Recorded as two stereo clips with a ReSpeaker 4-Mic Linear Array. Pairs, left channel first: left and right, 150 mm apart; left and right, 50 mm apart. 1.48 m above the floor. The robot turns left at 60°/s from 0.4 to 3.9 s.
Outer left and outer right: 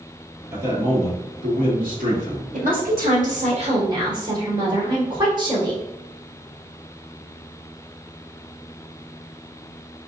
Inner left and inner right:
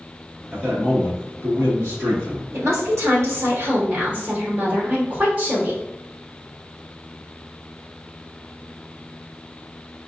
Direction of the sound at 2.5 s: 65° right.